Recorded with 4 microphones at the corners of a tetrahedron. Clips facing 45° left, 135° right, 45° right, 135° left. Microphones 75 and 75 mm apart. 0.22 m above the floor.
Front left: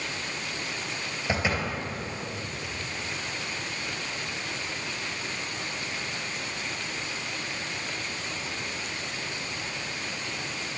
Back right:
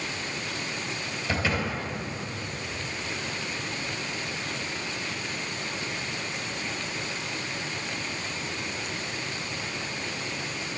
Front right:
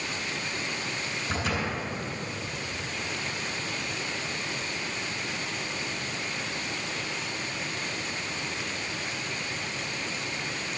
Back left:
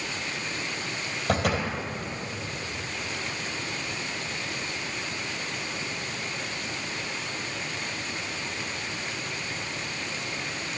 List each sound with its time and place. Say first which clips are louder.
1.3 s a door slam: even, back left 5 dB; 115° left, 3 m